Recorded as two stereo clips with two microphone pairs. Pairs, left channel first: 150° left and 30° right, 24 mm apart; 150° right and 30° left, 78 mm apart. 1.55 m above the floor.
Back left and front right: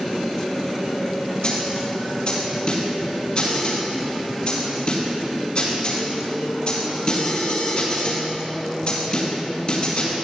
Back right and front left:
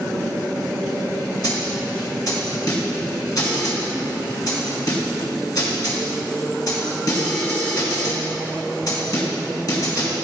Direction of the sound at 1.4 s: 170° right.